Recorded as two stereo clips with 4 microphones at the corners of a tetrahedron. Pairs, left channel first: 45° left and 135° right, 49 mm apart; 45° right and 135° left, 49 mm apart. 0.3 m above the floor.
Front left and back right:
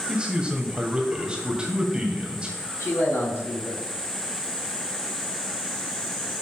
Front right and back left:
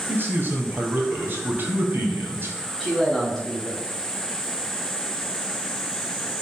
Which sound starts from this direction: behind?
A man speaking, at 0.1 s.